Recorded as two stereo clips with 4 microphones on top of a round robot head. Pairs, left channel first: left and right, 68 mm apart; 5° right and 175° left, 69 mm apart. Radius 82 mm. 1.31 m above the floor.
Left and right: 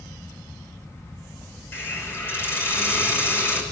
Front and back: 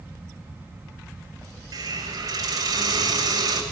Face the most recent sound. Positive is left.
turn(degrees=145)